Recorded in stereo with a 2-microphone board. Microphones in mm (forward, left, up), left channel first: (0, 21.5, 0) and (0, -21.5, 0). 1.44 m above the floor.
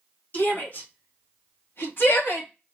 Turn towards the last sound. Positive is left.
turn(degrees=70)  # may be behind; listen again after turning